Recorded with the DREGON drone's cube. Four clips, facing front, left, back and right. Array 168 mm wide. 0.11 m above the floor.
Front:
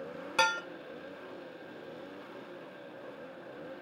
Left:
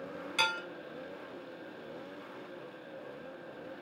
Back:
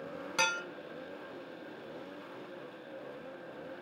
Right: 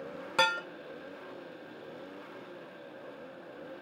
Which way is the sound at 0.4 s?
70° right.